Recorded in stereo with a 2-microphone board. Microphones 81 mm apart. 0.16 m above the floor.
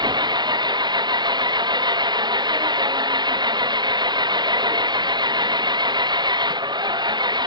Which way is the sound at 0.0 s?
65° right (ahead or behind).